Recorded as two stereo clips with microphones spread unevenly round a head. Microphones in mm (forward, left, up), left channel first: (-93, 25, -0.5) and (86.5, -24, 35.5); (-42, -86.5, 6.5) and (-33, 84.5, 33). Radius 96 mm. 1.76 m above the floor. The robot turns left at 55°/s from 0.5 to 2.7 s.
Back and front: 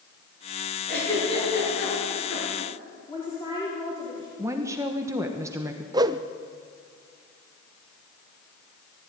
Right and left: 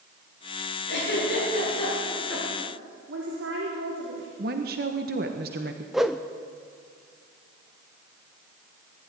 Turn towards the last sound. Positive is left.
turn(degrees=15)